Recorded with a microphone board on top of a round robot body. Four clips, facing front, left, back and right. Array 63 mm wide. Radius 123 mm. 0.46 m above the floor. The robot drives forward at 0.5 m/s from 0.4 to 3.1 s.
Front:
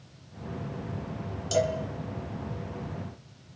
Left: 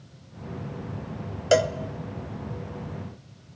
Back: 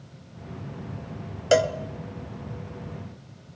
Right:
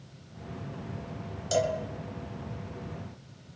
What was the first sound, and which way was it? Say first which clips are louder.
A cowbell: left 6 dB, back 6 dB; 135° left.